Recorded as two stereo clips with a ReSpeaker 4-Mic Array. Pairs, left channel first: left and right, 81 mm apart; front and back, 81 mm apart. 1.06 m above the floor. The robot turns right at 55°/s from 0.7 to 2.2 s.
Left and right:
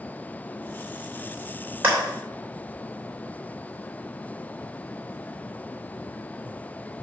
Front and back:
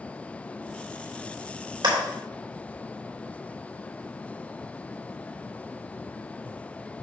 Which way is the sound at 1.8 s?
160° right.